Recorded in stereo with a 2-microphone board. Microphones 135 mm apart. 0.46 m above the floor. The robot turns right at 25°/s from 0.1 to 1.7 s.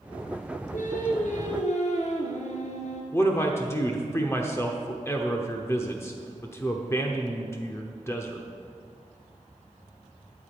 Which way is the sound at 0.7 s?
85° left.